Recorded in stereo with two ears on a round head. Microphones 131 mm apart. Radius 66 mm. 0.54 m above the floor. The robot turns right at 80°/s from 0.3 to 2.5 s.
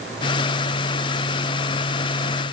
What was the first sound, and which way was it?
Only background noise.